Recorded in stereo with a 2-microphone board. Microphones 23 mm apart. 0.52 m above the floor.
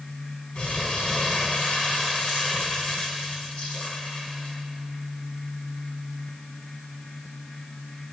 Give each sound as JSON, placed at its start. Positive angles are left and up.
{"t": 0.6, "sound": "crumpling", "side_deg": 50, "distance_m": 4.0}